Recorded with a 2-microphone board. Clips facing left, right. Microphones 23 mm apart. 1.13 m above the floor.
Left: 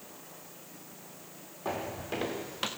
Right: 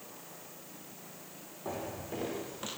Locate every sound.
1.6 s footsteps: 50° left (ahead or behind), 4 m; by 2.7 s 60° left (ahead or behind), 4 m